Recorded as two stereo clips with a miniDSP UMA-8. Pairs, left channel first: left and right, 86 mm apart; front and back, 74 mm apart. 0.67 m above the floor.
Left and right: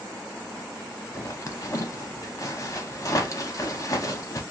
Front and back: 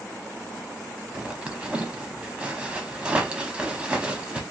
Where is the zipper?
110° left, 0.6 m.